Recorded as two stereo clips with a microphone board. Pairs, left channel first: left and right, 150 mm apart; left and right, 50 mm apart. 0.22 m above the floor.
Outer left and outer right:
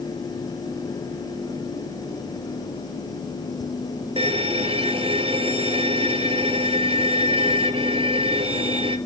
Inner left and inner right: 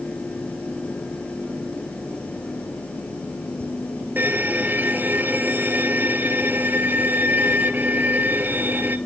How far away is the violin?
About 1.1 m.